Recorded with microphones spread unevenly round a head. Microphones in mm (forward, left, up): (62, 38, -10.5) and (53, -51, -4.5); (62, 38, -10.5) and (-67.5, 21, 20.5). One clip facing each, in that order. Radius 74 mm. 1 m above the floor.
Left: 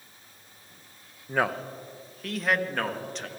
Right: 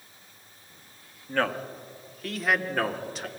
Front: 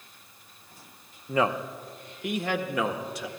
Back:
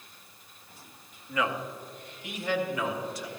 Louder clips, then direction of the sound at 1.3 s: Even, front 5 dB; 15° left.